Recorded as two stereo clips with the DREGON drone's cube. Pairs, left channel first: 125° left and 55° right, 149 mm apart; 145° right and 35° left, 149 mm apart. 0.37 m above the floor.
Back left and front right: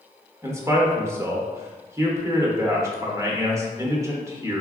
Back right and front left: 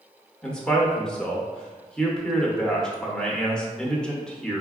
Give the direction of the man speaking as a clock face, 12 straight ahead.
2 o'clock.